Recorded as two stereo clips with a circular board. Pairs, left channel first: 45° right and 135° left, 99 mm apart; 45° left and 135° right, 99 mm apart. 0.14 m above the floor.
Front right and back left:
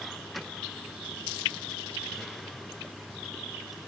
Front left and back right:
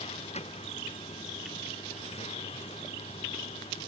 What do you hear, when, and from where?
0.0 s a vehicle: 45° left